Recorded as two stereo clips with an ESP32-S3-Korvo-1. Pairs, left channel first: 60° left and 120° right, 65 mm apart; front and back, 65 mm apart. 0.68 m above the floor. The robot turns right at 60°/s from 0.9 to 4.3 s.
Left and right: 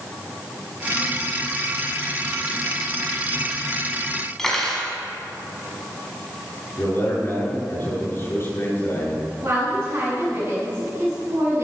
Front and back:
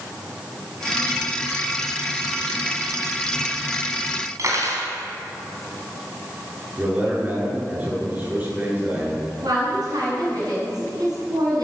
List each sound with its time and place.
4.4 s cutlery clinking: 145° left, 4 m
6.8 s a man speaking: 120° left, 7 m
9.4 s a woman speaking: straight behind, 6 m